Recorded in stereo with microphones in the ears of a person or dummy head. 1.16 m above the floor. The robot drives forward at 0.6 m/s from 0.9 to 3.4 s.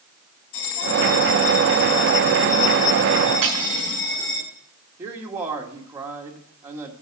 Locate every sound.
0.5 s a bell: 85° left, 5 m; by 4.4 s 70° left (ahead or behind), 5 m
3.4 s cutlery clinking: 35° right (ahead or behind), 5 m
5.0 s a man speaking: 10° right (ahead or behind), 1.6 m